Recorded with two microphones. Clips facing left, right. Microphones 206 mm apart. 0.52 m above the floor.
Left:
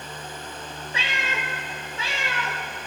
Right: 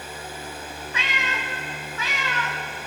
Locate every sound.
0.9 s a cat meowing: 30° left (ahead or behind), 0.7 m